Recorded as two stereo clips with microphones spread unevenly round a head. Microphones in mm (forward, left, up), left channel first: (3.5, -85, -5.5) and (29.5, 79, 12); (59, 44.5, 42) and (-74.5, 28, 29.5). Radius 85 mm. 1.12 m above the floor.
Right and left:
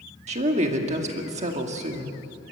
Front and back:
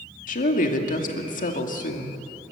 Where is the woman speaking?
30° left, 2.5 m.